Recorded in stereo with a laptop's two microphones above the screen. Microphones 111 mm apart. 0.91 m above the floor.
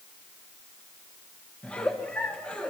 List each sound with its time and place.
1.6 s a giggle: 10° left (ahead or behind), 1.0 m